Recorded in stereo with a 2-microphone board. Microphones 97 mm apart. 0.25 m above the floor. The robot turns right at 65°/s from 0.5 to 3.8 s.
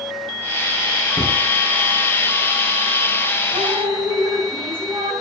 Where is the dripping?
75° right (ahead or behind), 5.5 m; by 5.1 s 55° right (ahead or behind), 5.5 m.